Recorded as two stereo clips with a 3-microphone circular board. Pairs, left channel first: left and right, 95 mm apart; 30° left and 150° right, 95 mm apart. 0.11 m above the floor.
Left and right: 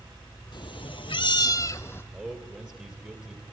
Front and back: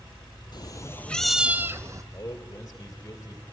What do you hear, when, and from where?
0.5 s a cat meowing: 65° left, 0.6 m; by 2.0 s 155° left, 0.9 m
2.1 s a man speaking: 25° right, 2.5 m